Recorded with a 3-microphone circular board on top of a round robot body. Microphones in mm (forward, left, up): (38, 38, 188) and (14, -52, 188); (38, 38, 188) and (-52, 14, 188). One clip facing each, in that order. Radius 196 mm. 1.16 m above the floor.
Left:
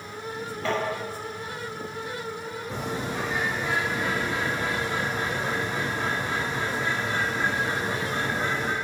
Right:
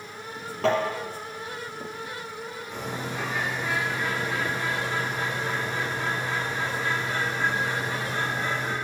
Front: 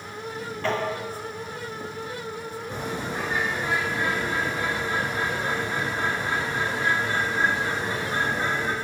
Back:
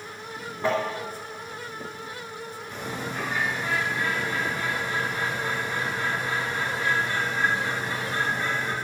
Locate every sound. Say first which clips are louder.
0.6 s tapping: right 5 dB, back 2 dB; 90° right, 3.5 m
2.7 s a bird: left 2 dB, front 2 dB; 75° left, 4 m